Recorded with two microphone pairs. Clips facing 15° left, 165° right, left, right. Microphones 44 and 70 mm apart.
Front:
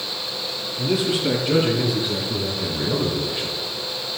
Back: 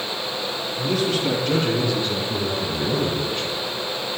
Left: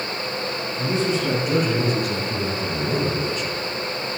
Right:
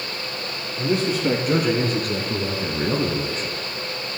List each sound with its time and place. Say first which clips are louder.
0.8 s a man speaking: front 1 dB, right 1 dB; 65° right, 4 m; by 3.6 s 70° right, 2.0 m